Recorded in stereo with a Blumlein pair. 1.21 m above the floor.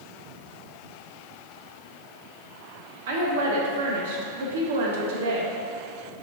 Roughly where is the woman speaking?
Ahead right.